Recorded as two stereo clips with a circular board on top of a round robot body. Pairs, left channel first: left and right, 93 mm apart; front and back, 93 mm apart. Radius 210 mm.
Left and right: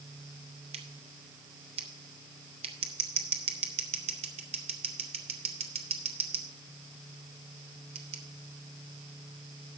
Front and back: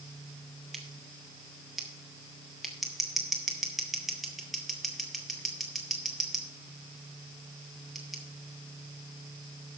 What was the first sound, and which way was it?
Scissors, 90° right.